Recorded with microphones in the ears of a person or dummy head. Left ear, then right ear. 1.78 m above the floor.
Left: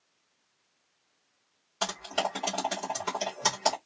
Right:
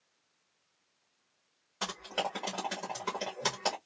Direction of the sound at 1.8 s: 5° right (ahead or behind).